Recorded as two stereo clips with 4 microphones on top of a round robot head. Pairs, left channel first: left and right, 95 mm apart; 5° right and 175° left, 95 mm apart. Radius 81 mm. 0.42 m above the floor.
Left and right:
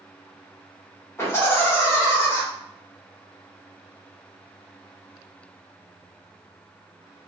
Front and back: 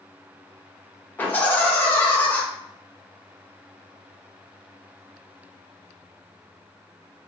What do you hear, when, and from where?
1.2 s laughter: 50° left, 1.3 m